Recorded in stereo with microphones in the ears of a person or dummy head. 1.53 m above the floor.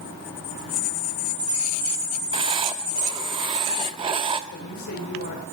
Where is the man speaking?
65° left (ahead or behind), 7.5 m.